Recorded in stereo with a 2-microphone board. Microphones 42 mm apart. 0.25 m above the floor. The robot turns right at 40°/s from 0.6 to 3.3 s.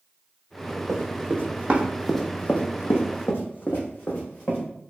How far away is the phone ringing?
I don't hear a phone ringing.